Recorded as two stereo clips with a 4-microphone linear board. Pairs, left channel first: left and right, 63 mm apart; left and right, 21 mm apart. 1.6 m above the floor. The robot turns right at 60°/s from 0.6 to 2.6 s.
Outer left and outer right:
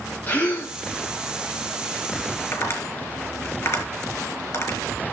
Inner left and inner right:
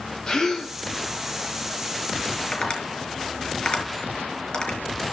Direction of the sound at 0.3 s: 30° left (ahead or behind).